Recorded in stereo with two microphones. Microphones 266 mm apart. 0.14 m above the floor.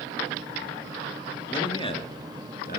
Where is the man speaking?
15° left (ahead or behind), 2.5 m; by 2.8 s 35° left (ahead or behind), 1.8 m.